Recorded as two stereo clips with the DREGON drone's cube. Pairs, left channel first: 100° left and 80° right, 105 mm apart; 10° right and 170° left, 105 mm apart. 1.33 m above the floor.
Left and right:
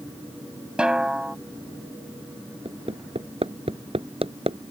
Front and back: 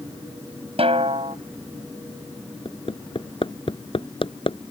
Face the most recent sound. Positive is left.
turn(degrees=-50)